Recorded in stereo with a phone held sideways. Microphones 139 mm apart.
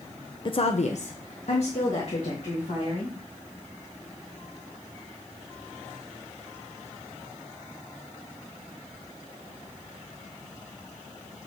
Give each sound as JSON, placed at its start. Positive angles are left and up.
{"t": 0.5, "sound": "a woman speaking", "side_deg": 35, "distance_m": 0.6}